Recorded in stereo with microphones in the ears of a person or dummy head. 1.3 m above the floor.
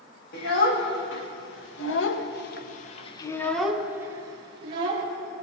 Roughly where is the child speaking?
Left.